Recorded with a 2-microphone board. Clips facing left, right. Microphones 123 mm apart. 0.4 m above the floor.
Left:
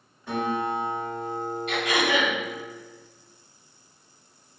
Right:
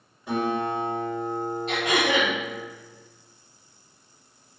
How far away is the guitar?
About 1.6 m.